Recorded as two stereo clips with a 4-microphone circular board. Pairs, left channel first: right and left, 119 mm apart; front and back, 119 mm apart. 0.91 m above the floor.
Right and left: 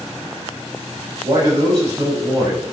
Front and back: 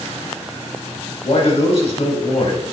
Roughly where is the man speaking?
Ahead left.